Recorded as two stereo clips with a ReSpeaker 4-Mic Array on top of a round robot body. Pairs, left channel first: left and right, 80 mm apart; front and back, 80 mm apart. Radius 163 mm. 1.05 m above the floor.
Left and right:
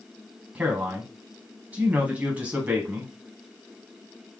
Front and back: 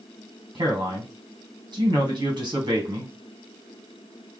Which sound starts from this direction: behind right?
A man speaking, at 0.6 s.